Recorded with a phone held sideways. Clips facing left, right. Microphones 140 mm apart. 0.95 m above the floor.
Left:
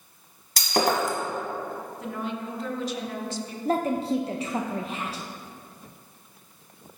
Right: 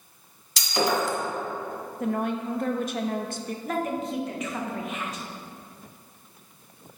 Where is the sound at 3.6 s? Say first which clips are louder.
Left 5 dB; 30° left (ahead or behind), 0.5 m.